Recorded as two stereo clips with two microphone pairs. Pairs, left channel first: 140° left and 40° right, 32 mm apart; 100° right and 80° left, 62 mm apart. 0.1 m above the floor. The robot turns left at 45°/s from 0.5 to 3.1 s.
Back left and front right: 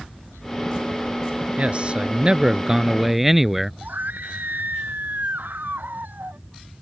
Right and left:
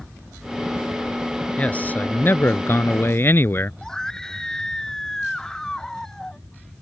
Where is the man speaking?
45° right; by 3.7 s 115° right.